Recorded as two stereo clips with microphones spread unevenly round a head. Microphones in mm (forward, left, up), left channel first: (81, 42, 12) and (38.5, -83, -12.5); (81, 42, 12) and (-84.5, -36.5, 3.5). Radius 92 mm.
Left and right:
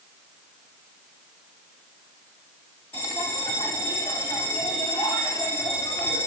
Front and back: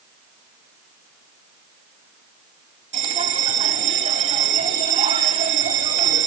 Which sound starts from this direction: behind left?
A bell, at 2.9 s.